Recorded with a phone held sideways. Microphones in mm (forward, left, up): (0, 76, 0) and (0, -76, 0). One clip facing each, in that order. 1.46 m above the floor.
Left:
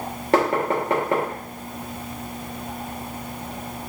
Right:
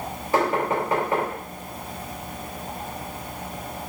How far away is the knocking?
About 1.1 m.